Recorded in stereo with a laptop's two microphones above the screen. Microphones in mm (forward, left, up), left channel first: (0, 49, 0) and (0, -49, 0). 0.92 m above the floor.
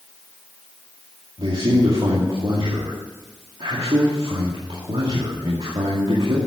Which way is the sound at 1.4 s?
65° right (ahead or behind).